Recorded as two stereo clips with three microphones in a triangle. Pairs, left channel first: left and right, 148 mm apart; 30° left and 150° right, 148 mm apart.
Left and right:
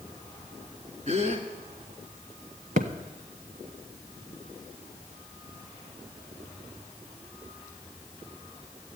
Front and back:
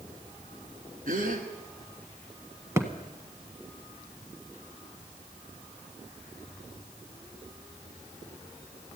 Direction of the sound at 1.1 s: 130° right.